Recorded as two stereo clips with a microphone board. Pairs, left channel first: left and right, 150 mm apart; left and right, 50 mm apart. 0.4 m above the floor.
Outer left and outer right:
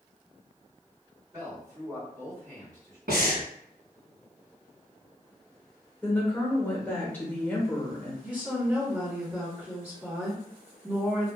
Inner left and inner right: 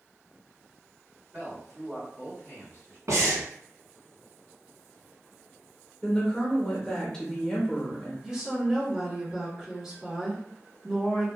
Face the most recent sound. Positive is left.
turn(degrees=-10)  # may be behind; listen again after turning